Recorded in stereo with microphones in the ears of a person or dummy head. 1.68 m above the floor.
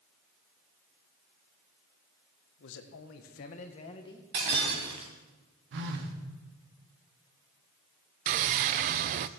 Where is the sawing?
35° right (ahead or behind), 0.5 m.